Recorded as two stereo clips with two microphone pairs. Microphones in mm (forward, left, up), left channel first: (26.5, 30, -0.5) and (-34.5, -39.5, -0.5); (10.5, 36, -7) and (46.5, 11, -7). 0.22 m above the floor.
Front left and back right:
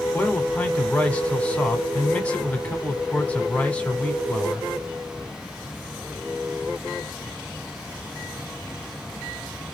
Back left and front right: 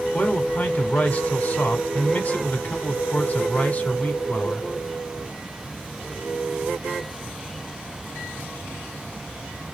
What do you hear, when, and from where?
0.1 s a man speaking: 120° left, 1.4 m